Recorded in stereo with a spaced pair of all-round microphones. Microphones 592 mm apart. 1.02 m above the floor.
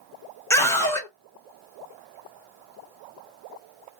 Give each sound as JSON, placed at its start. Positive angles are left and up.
{"t": 0.5, "sound": "a scream", "side_deg": 5, "distance_m": 0.9}